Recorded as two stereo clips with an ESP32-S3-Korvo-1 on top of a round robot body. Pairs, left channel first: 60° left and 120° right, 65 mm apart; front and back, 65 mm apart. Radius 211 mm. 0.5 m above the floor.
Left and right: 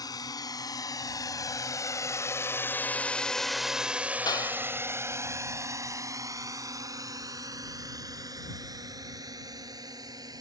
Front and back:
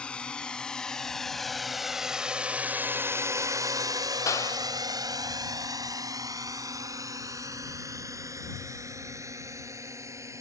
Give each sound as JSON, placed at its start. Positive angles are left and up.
{"t": 0.0, "sound": "a drone", "azimuth_deg": 75}
{"t": 4.3, "sound": "a clap", "azimuth_deg": 40}